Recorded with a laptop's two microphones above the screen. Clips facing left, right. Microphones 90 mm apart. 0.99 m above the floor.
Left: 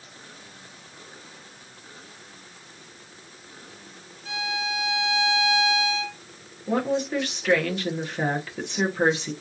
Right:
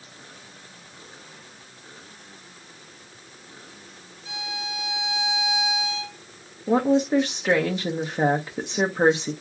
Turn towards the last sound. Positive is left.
turn(degrees=-20)  # may be behind; listen again after turning